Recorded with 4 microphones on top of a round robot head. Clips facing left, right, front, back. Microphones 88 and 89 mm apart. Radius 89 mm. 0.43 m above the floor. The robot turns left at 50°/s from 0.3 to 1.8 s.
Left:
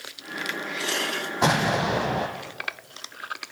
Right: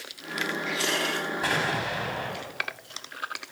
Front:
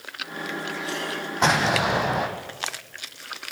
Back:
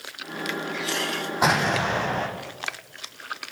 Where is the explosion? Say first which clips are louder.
Left 8 dB, front 1 dB; 95° left, 3.5 m; by 2.3 s 75° left, 3.5 m.